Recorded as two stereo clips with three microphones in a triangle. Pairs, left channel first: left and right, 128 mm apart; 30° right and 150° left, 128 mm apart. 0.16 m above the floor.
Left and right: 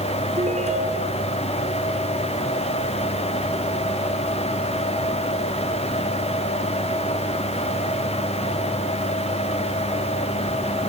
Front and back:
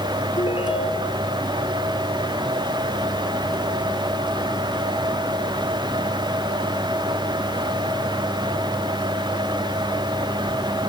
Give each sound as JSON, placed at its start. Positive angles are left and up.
{"t": 0.4, "sound": "a ringtone", "azimuth_deg": -75}